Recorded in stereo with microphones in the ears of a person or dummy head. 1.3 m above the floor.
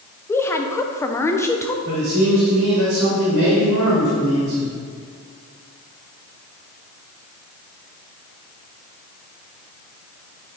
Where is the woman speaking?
10° left (ahead or behind), 0.6 m.